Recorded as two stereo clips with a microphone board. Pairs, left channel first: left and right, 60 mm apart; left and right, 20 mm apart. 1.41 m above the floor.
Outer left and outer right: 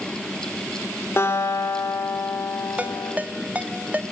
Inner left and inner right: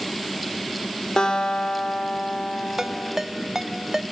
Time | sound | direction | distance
1.2 | a guitar | 40° left (ahead or behind) | 4 m
2.8 | a ringtone | 25° right (ahead or behind) | 1.0 m